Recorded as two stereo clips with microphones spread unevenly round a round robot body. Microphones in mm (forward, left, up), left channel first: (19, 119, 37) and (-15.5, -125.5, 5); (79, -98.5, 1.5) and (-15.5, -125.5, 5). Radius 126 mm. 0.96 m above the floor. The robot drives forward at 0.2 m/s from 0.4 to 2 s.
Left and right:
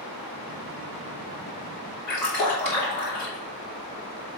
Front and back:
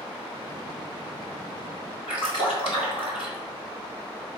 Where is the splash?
95° left, 3.5 m.